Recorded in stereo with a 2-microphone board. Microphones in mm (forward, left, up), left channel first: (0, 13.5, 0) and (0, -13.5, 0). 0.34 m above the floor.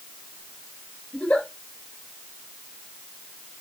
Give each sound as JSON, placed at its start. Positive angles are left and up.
{"t": 1.1, "sound": "a giggle", "side_deg": 50, "distance_m": 4.0}